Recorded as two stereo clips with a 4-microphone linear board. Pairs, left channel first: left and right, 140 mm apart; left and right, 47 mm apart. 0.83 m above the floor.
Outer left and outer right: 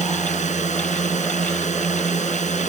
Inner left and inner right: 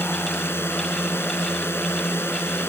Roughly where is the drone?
Left.